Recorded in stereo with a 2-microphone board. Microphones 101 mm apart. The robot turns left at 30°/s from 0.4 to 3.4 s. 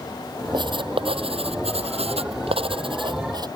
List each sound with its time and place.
0.5 s writing: 50° right; by 3.5 s 135° right